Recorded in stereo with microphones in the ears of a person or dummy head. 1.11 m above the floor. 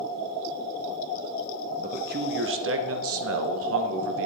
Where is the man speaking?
30° right (ahead or behind), 0.7 m; by 4.3 s 70° right (ahead or behind), 1.6 m.